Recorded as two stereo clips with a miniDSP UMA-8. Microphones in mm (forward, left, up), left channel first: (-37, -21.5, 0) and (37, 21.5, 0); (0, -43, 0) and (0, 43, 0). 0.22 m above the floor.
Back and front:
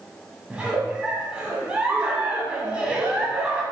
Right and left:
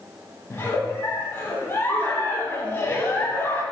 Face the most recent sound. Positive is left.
turn(degrees=-40)